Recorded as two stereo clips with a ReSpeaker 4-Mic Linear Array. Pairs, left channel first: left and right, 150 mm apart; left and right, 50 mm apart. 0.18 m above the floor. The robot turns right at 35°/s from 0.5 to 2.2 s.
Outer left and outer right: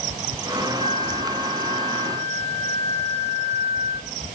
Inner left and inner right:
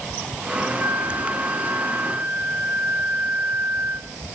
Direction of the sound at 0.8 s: 105° right.